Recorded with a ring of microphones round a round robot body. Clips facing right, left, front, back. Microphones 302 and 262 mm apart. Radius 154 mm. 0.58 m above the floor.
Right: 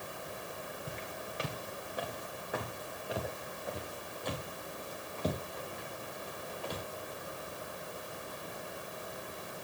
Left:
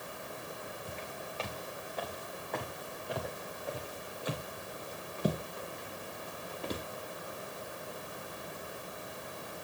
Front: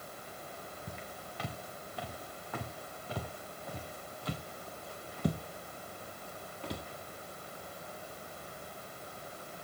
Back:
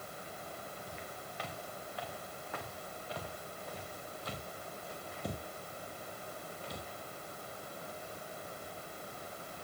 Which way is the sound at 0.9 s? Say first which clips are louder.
Even, front 1 dB; 20° right.